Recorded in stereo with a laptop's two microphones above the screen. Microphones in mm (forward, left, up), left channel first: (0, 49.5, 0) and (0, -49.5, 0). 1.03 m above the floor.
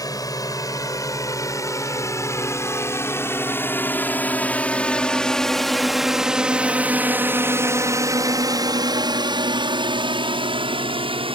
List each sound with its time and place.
0.0 s a drone: 40° left (ahead or behind); by 11.4 s 65° right (ahead or behind)